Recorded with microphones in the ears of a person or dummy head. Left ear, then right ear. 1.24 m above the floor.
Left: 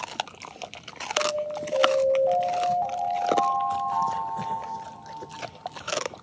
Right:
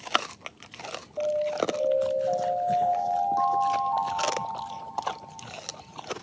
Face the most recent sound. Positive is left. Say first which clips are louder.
# right 1 dB
turn(degrees=45)  # may be behind; listen again after turning